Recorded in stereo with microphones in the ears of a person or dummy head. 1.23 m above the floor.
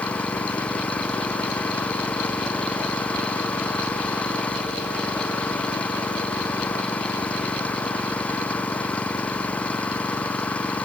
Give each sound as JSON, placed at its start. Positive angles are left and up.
{"t": 0.0, "sound": "an engine running", "side_deg": 10}